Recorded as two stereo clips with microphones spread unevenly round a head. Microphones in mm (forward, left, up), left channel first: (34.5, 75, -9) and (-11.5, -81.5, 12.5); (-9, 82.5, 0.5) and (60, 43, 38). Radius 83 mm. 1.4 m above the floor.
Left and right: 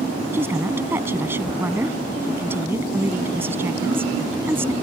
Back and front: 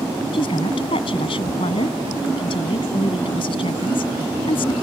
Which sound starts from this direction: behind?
A woman speaking, at 0.3 s.